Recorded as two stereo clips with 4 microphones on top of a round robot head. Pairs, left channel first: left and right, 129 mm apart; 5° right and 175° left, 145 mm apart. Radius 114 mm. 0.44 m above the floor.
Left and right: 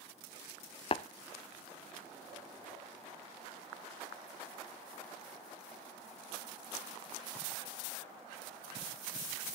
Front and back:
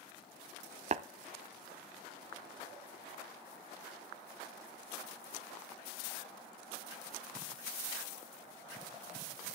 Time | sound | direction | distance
0.9 | tapping | 135° left | 0.6 m